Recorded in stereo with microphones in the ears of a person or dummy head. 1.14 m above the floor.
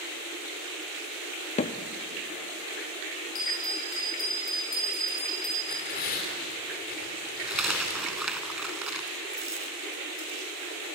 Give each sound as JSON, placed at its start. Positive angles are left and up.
{"t": 1.6, "sound": "hammering", "side_deg": 40, "distance_m": 1.2}
{"t": 3.4, "sound": "a bell", "side_deg": 50, "distance_m": 5.0}
{"t": 5.6, "sound": "tearing paper", "side_deg": 55, "distance_m": 4.0}
{"t": 7.5, "sound": "a dropped coin", "side_deg": -5, "distance_m": 1.6}